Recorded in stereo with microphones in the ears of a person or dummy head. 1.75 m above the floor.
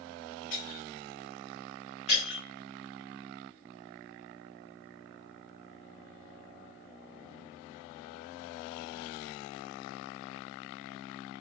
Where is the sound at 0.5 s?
25° left (ahead or behind), 1.8 m.